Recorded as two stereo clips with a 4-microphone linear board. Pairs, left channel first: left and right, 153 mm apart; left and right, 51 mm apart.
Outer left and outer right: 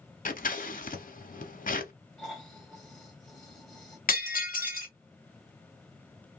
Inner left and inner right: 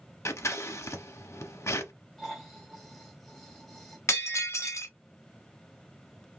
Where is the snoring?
5° left (ahead or behind), 1.8 m.